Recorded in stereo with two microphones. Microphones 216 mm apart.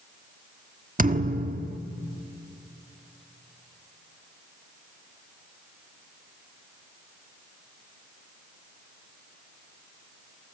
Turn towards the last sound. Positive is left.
turn(degrees=-40)  # may be behind; listen again after turning